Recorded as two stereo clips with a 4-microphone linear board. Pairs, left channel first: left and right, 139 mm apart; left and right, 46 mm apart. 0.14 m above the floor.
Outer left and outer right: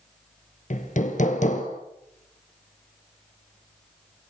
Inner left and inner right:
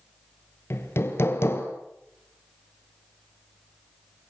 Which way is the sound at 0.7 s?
65° left (ahead or behind).